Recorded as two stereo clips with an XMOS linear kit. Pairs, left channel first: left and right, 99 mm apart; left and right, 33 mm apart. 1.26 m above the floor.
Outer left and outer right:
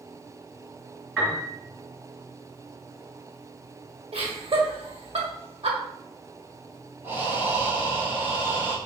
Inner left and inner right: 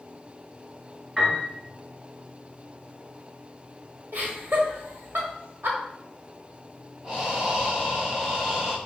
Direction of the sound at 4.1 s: 70° right (ahead or behind).